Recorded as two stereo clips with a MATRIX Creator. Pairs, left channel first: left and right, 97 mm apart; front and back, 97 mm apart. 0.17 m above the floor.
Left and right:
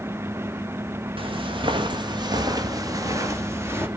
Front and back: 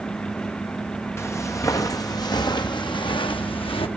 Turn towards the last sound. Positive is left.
turn(degrees=-25)